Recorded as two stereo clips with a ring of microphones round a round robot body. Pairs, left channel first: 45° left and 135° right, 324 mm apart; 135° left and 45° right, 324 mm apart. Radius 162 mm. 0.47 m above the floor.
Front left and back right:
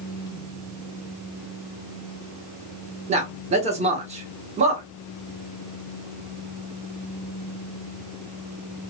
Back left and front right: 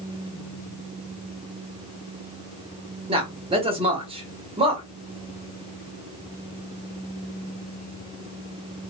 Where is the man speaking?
95° right, 0.9 m.